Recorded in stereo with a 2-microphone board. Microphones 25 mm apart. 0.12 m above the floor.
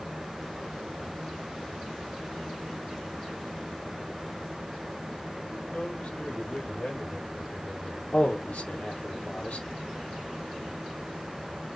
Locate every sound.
5.7 s a man speaking: 65° left (ahead or behind), 4 m
8.1 s a man speaking: 70° left (ahead or behind), 3 m